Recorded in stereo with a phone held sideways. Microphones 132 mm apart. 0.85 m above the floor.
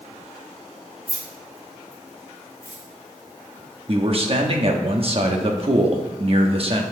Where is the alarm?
No alarm in this recording.